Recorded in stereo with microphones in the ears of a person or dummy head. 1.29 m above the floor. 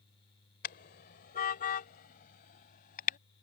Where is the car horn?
55° left (ahead or behind); by 3.2 s 45° left (ahead or behind).